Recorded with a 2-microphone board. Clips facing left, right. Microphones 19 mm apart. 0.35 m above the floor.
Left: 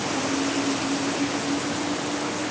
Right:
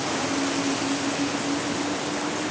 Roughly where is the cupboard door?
I don't hear a cupboard door.